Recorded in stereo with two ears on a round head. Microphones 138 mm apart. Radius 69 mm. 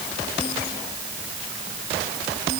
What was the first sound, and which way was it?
Only background noise.